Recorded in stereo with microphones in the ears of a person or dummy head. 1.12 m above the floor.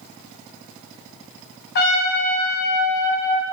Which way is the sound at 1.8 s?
45° left (ahead or behind).